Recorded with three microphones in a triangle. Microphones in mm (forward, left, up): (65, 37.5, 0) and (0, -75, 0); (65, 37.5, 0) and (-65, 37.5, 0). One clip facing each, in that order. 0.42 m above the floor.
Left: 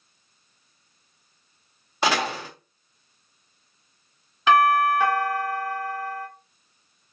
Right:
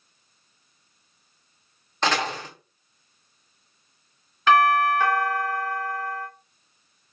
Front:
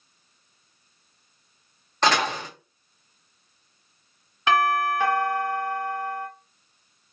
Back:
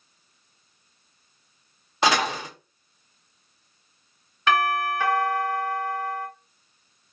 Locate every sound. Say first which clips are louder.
2.0 s a door slam: left 1 dB, even; 120° left, 0.8 m
4.5 s a doorbell: even, front 1 dB; 15° left, 1.3 m